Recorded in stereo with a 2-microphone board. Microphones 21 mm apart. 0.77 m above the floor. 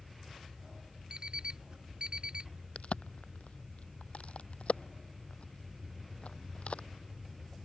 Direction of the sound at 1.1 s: 45° right (ahead or behind).